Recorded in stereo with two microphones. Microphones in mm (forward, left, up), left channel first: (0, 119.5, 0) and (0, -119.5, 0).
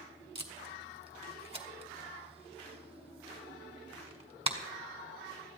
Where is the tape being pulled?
25° right (ahead or behind), 1.5 m.